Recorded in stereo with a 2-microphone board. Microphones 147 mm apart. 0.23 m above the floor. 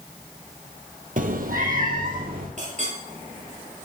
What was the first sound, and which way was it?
A cat meowing, 65° right (ahead or behind).